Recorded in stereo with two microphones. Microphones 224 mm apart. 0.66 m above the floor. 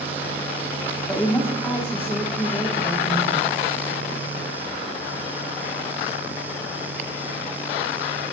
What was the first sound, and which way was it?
A woman speaking, 10° left (ahead or behind).